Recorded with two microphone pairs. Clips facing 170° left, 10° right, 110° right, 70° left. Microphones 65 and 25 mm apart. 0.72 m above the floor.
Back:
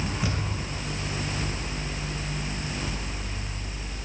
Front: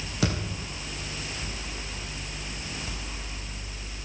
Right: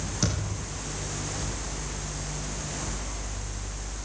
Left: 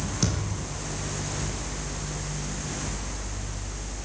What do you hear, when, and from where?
0.2 s a thud: 20° right, 8.5 m